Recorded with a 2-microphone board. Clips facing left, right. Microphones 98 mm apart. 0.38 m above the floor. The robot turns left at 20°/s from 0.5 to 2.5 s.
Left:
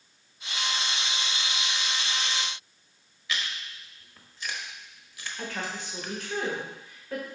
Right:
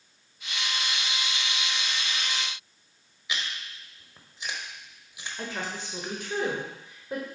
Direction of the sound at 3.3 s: 20° right (ahead or behind).